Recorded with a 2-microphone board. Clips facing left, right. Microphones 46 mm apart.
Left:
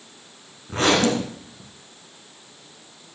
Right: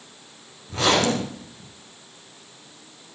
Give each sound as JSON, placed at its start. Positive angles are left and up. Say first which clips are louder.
{"t": 0.7, "sound": "a zipper", "louder": "left 1 dB", "side_deg": 35, "distance_m": 6.0}